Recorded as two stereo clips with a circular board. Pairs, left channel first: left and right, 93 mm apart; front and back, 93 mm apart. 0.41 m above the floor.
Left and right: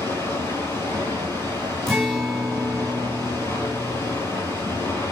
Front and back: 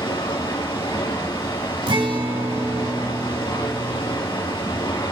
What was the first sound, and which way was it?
Running water, 30° left.